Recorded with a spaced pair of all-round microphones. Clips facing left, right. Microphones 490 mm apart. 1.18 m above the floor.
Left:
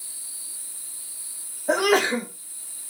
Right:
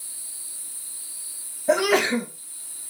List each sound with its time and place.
1.7 s a sneeze: 45° right (ahead or behind), 1.8 m